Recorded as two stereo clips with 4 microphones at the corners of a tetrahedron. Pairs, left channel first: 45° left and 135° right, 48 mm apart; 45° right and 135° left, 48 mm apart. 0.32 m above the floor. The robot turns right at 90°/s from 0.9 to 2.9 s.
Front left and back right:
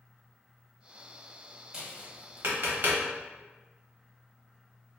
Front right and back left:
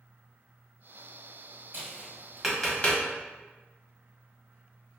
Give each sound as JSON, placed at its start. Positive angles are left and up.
{"t": 1.7, "sound": "tapping", "azimuth_deg": 155, "distance_m": 1.0}